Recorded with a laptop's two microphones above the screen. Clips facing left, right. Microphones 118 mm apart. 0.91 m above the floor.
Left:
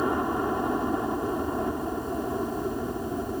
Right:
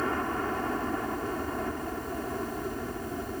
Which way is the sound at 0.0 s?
15° left (ahead or behind).